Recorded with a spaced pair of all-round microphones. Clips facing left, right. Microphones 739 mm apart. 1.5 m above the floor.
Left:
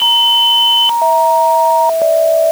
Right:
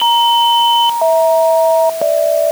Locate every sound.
Only background noise.